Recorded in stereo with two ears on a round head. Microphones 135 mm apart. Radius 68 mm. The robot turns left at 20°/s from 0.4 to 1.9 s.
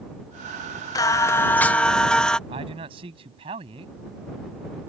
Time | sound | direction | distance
0.9 | singing | 25° left (ahead or behind) | ?
2.5 | a man speaking | 40° right (ahead or behind) | ?